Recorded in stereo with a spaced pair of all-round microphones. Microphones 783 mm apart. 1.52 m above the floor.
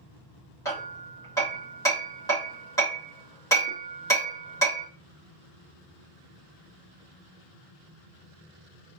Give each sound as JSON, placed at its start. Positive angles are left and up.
{"t": 0.7, "sound": "hammering", "side_deg": 5, "distance_m": 2.0}